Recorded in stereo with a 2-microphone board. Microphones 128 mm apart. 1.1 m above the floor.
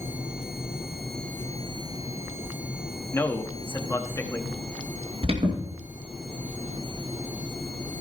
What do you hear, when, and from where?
3.1 s a man speaking: 20° left (ahead or behind), 1.5 m
5.2 s an alarm: 50° right (ahead or behind), 2.5 m